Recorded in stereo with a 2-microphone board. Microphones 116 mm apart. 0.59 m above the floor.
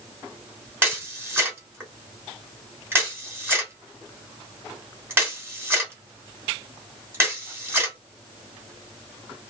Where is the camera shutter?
20° right (ahead or behind), 1.3 m.